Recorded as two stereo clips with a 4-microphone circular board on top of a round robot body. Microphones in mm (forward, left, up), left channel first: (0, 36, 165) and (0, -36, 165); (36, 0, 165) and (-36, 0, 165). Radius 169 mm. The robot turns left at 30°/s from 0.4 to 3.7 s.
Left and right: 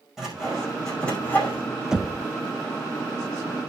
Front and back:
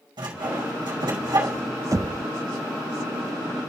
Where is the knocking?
170° right, 0.5 m; by 2.2 s straight behind, 0.5 m.